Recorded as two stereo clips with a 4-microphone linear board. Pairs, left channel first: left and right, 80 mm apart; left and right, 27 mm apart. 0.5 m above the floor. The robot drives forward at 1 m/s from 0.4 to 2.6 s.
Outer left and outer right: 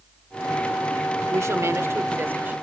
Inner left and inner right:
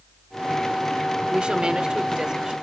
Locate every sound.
1.3 s a woman speaking: 40° right (ahead or behind), 1.2 m; by 2.5 s 25° right (ahead or behind), 2.0 m